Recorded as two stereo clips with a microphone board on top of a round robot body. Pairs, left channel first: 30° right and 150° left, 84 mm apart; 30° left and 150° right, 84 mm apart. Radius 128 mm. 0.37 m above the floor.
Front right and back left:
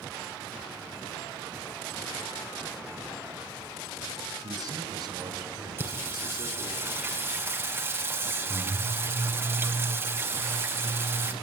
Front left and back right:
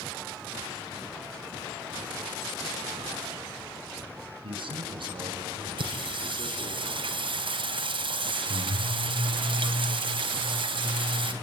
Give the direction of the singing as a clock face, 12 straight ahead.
5 o'clock.